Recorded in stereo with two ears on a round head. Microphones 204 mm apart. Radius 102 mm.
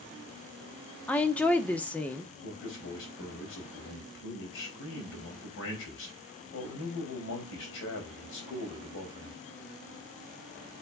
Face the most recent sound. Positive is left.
turn(degrees=55)  # may be behind; listen again after turning